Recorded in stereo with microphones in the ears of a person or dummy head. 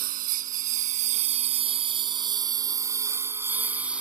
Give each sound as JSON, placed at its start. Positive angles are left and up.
{"t": 0.0, "sound": "a lawn mower", "side_deg": -45}